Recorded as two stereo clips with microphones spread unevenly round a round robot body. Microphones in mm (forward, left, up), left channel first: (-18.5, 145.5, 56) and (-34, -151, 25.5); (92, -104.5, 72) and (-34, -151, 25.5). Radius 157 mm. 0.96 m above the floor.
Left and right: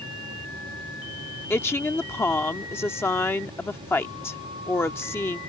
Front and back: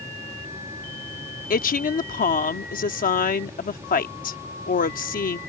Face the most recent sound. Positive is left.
turn(degrees=5)